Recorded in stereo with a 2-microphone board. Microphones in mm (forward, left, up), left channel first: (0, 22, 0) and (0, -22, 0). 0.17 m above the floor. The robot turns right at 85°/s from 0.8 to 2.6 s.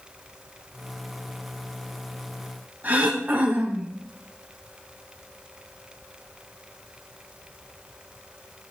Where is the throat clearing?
40° right (ahead or behind), 3 m.